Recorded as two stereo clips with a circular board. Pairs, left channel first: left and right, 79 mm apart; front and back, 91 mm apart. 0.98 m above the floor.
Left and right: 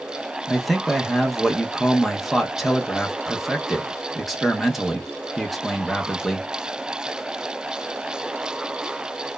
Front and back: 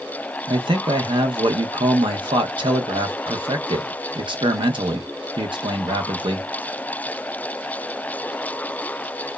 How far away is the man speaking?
About 0.6 m.